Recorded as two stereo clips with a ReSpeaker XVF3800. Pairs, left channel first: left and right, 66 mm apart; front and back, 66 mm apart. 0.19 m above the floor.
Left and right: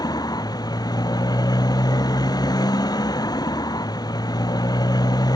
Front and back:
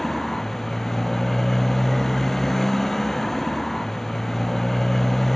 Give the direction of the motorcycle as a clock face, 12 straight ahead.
9 o'clock.